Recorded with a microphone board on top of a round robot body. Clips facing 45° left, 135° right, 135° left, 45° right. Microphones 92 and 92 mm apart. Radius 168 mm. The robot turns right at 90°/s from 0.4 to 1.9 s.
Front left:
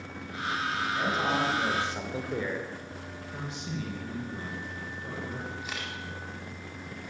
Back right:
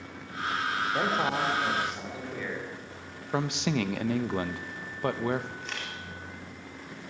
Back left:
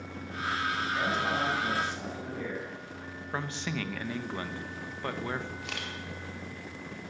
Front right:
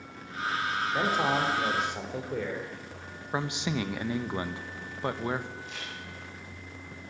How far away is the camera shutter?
About 4.5 m.